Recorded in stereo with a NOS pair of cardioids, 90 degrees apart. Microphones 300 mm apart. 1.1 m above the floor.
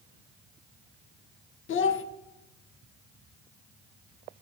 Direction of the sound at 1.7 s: 45° left.